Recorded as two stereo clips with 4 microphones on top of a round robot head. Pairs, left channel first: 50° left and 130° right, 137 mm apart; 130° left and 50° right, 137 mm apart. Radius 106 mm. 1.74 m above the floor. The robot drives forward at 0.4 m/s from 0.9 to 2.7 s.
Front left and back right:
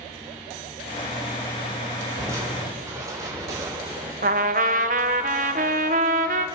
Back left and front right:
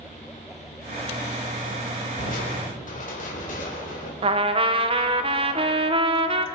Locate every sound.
2.2 s crushing: 160° left, 4 m
4.2 s a trumpet: 100° right, 1.0 m